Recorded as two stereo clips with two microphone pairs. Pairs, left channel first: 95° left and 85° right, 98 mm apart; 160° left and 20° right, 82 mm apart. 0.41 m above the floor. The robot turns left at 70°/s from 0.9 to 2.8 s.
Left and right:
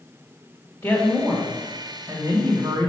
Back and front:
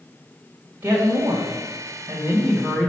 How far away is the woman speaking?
About 1.7 m.